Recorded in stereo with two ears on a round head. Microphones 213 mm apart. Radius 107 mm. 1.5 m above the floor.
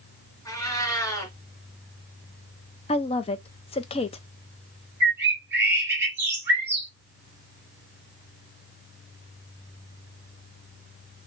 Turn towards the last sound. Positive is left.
turn(degrees=-10)  # may be behind; listen again after turning